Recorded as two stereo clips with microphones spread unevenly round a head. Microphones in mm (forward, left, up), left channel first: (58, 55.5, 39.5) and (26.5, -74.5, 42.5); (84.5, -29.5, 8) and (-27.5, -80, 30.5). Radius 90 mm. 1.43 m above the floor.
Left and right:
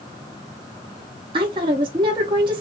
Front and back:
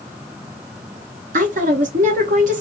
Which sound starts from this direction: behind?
A woman speaking, at 1.3 s.